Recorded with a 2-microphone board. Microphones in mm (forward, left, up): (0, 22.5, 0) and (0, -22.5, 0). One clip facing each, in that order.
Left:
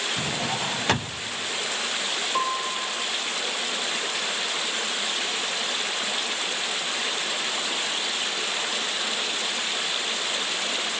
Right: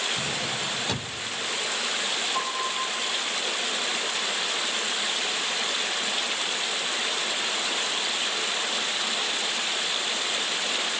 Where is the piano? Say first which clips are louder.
Left 2 dB; 40° left (ahead or behind), 7.5 m.